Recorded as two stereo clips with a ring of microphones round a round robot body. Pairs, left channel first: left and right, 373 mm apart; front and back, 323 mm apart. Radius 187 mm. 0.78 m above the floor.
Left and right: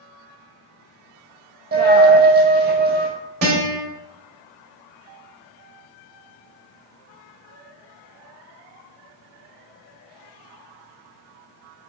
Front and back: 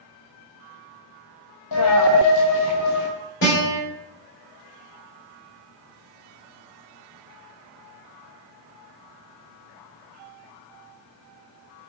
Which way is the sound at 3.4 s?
60° right.